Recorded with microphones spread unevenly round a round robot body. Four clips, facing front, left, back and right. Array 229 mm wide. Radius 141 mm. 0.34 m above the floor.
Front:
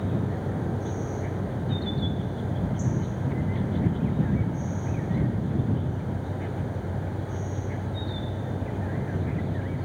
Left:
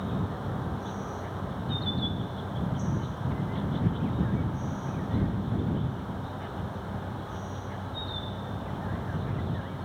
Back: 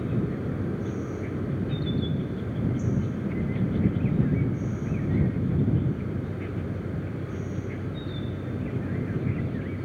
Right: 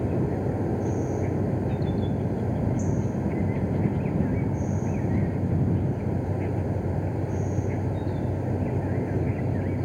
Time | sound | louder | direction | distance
0.0 | an insect | right 7 dB, back 1 dB | 110° right | ?